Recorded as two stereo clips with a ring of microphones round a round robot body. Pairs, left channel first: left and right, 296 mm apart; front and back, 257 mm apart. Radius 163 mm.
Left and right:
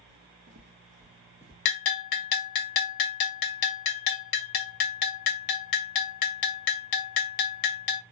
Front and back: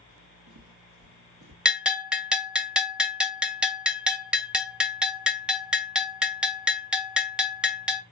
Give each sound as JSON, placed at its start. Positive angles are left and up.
{"t": 0.1, "sound": "footsteps", "azimuth_deg": -145, "distance_m": 1.4}
{"t": 1.6, "sound": "a bell", "azimuth_deg": 95, "distance_m": 0.9}